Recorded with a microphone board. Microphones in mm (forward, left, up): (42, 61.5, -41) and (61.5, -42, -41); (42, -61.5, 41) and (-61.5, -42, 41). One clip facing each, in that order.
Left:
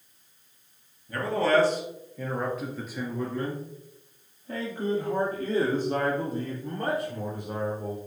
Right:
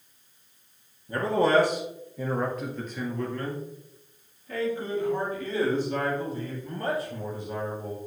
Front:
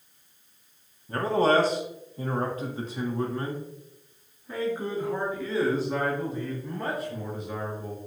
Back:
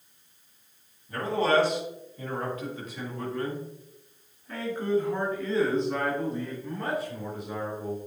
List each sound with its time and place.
1.1 s a man speaking: 30° right, 2 m; by 8.0 s 85° left, 4 m